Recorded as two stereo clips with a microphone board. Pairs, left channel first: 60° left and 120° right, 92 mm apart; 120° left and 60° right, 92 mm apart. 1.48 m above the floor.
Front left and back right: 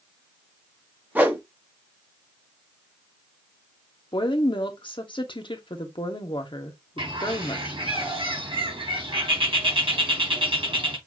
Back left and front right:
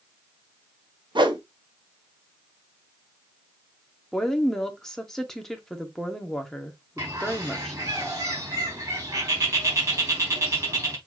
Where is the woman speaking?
35° left, 1.3 m.